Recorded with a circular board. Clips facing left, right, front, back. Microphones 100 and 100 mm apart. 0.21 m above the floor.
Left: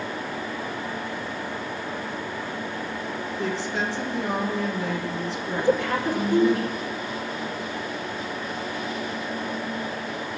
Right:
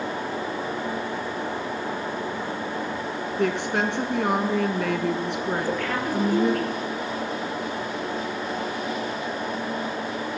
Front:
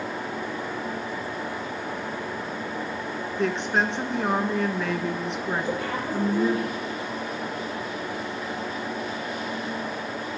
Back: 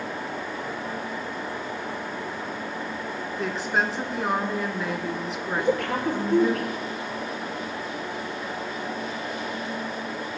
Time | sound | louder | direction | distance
3.4 | a woman speaking | right 5 dB, front 2 dB | 95° right | 2.0 m
5.6 | a woman speaking | left 3 dB, back 3 dB | 160° left | 4.5 m